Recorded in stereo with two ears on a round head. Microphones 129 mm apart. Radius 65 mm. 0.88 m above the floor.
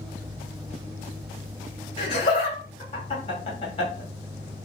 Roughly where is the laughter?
Left.